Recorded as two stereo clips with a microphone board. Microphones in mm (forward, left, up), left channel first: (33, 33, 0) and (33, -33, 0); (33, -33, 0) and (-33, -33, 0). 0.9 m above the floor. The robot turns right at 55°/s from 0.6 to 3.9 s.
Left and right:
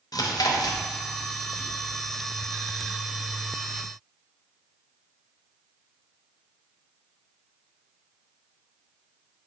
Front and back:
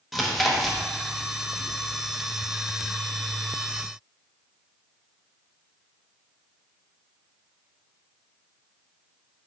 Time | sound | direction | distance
0.1 | chewing | 90° left | 0.5 m